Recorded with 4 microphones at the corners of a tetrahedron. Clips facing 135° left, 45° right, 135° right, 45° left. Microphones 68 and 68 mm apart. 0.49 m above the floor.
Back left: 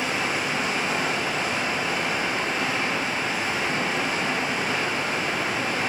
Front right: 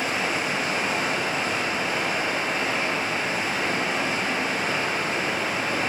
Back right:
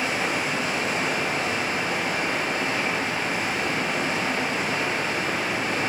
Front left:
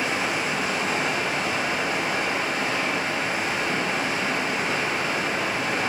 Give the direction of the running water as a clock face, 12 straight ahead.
12 o'clock.